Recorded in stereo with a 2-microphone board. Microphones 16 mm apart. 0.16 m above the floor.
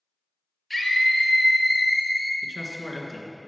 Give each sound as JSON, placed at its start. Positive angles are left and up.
{"t": 0.7, "sound": "a scream", "side_deg": -5, "distance_m": 2.5}
{"t": 2.4, "sound": "a man speaking", "side_deg": 5, "distance_m": 1.9}